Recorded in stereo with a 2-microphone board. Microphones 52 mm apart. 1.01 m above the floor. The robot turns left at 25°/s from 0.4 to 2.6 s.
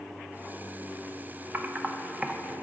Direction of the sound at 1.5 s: 35° right (ahead or behind).